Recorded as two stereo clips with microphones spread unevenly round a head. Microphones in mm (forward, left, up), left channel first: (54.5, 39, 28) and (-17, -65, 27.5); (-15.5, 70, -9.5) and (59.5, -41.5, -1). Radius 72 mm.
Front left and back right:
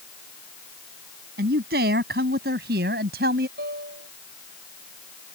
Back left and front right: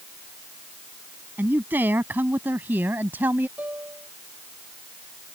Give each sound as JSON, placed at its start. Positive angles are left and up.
{"t": 1.4, "sound": "a man speaking", "azimuth_deg": -135}
{"t": 3.6, "sound": "a piano", "azimuth_deg": -135}